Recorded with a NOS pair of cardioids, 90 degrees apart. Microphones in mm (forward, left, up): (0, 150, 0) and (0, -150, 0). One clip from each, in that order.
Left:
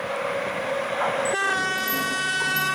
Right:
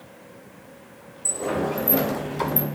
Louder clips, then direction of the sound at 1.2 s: Left 4 dB; 50° right.